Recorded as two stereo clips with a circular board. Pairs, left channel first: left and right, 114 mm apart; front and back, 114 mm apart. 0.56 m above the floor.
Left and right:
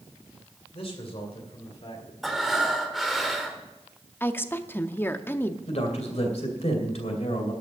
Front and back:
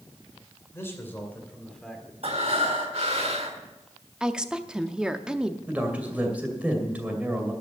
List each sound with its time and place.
0.7 s a man speaking: 65° left, 3 m; by 2.1 s 95° left, 1.9 m
2.2 s breathing: straight behind, 1.6 m
4.2 s a woman speaking: 110° left, 0.6 m
5.7 s a man speaking: 105° left, 2.5 m